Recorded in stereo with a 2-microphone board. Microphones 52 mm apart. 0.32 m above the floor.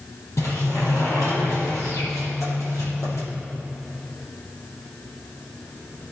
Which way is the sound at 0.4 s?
75° left (ahead or behind).